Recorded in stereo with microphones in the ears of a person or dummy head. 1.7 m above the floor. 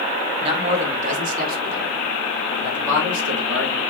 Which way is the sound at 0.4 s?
30° right (ahead or behind).